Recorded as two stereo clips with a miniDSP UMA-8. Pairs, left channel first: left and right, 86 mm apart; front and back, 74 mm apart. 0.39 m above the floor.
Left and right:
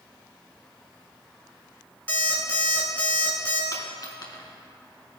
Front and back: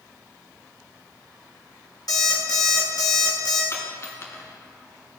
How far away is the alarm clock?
About 1.8 m.